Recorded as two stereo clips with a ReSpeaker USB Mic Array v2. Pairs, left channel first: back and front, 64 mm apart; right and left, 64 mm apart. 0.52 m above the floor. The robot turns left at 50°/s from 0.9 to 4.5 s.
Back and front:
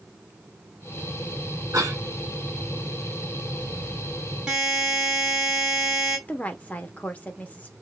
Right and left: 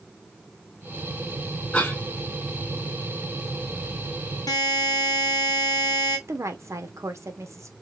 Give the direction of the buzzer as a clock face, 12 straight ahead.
3 o'clock.